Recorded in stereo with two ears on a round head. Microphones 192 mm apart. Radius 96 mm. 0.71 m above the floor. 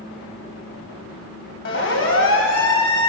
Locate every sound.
1.6 s a siren: 55° left (ahead or behind), 6.5 m; by 3.1 s 70° left (ahead or behind), 7 m